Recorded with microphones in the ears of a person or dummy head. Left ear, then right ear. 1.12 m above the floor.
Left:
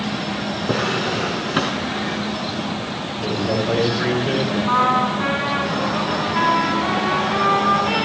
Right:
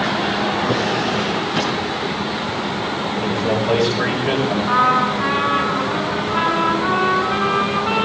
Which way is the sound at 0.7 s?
35° left (ahead or behind).